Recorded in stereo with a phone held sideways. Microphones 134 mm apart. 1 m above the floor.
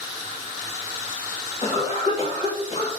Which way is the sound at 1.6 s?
50° left (ahead or behind).